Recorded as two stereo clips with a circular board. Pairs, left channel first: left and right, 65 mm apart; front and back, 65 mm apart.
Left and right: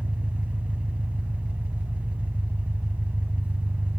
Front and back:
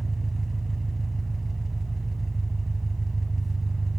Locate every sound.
0.0 s an engine running: 95° right, 1.1 m